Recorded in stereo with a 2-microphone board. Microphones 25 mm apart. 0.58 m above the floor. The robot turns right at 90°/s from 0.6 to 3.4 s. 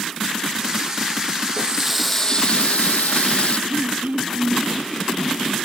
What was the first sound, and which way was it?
A running tap, 45° right.